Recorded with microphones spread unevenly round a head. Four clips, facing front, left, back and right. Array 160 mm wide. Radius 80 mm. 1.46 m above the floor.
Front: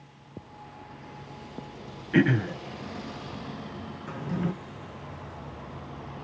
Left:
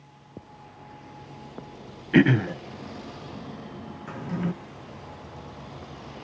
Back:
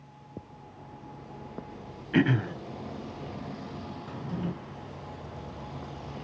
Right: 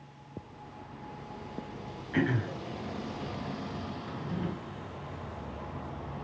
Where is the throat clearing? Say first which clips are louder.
Left 10 dB, front 2 dB; 75° left, 1.0 m.